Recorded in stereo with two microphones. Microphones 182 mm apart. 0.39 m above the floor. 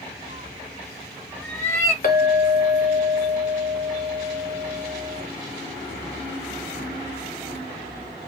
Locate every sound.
0.3 s a cat meowing: 35° right (ahead or behind), 0.5 m; by 1.9 s 15° left (ahead or behind), 1.2 m
2.0 s a clink: 50° left (ahead or behind), 1.1 m